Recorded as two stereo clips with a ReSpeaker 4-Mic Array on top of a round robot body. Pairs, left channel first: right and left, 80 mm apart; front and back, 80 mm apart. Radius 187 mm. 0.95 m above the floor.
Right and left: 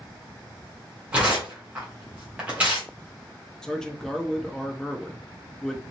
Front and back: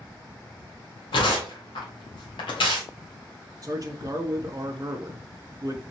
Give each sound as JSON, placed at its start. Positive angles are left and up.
{"t": 1.1, "sound": "tearing paper", "azimuth_deg": 15, "distance_m": 0.7}
{"t": 3.6, "sound": "a man speaking", "azimuth_deg": -170, "distance_m": 0.7}